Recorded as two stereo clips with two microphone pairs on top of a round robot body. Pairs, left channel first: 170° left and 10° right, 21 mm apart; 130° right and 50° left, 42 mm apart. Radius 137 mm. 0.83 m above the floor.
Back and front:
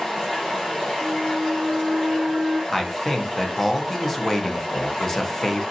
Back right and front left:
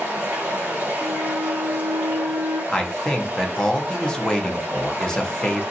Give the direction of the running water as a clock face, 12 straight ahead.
9 o'clock.